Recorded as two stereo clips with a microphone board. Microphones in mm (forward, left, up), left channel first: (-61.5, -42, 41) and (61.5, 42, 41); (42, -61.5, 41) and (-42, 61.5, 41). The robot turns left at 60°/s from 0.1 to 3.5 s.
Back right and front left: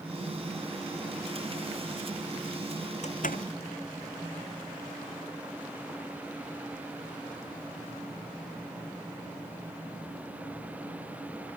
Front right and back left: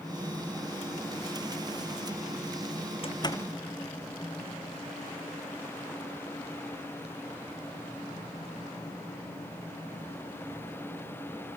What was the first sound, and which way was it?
A door slam, 105° right.